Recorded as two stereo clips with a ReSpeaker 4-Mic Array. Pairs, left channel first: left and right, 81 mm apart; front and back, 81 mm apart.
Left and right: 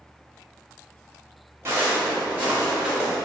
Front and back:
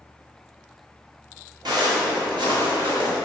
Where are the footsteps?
150° right, 1.2 m; by 3.1 s straight behind, 1.5 m.